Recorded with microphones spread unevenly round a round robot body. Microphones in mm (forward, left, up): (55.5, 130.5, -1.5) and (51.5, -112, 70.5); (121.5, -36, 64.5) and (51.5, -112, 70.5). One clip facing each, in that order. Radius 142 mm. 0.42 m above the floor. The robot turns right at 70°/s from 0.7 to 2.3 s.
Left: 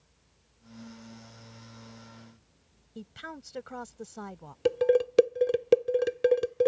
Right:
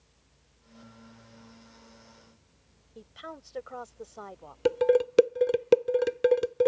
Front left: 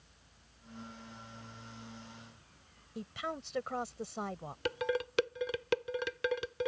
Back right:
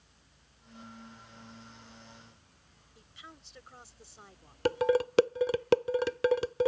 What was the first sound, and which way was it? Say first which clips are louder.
A woman speaking: left 2 dB, front left 14 dB; 50° left.